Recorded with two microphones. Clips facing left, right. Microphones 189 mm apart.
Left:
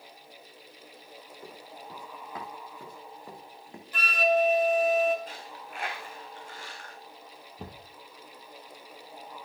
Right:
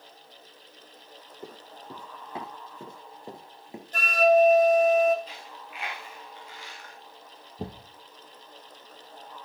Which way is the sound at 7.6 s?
30° right (ahead or behind).